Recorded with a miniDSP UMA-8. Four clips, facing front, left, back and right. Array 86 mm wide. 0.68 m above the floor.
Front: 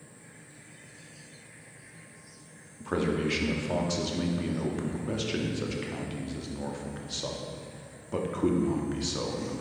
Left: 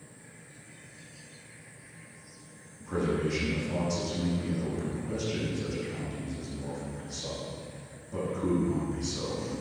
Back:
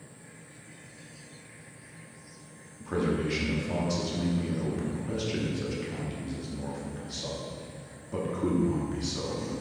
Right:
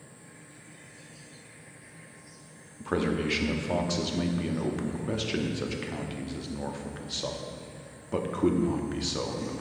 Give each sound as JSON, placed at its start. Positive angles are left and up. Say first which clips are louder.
{"t": 2.8, "sound": "a man speaking", "louder": "right 1 dB, even", "azimuth_deg": -70, "distance_m": 0.8}